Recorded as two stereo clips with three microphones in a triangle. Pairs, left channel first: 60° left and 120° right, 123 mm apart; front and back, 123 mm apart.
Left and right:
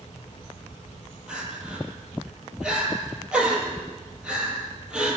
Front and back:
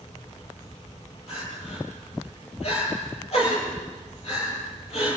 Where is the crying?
35° right, 9.5 m.